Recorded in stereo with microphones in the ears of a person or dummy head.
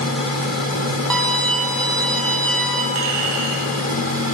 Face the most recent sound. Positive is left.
turn(degrees=-85)